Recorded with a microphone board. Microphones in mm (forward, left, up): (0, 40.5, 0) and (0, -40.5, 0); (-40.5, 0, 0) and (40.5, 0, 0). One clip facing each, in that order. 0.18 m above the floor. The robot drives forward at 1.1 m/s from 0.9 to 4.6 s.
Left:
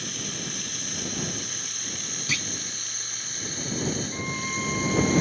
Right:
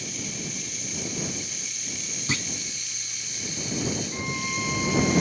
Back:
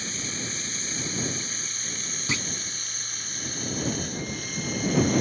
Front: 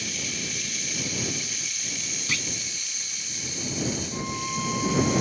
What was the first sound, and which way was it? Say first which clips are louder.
Running water: even, even; 120° left.